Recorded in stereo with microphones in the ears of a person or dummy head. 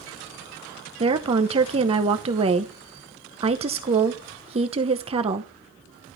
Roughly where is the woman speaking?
Right.